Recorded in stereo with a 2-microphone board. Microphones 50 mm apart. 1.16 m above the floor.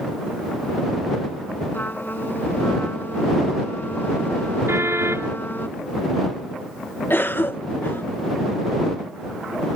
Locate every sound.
1.7 s a trumpet: 40° left (ahead or behind)
4.7 s a car horn: 55° right (ahead or behind)
7.1 s a cough: 45° left (ahead or behind)